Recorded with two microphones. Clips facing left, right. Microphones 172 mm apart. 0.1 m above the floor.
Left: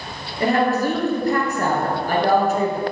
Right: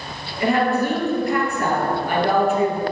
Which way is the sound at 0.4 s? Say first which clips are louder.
Even; 40° left (ahead or behind).